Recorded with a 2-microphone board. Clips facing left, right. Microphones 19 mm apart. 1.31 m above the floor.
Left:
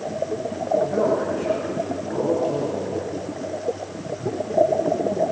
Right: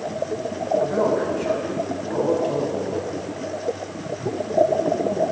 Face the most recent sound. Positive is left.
turn(degrees=-25)  # may be behind; listen again after turning